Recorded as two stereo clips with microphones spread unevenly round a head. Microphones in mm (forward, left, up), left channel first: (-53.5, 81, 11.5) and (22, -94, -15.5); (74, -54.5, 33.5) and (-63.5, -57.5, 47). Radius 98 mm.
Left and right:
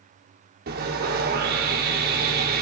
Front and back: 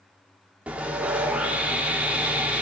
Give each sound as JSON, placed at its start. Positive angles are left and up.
{"t": 0.7, "sound": "sawing", "azimuth_deg": -100, "distance_m": 2.5}